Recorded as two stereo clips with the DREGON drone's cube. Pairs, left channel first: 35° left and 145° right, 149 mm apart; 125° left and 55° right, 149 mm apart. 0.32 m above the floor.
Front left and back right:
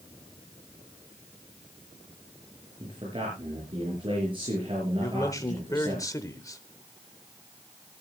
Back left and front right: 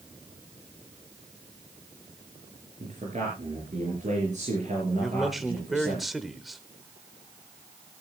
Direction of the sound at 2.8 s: 90° right.